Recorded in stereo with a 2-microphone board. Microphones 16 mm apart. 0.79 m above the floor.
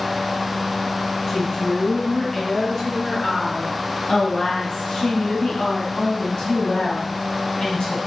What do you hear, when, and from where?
1.3 s a woman speaking: 40° left (ahead or behind), 6.5 m; by 8.0 s 70° left (ahead or behind), 5.5 m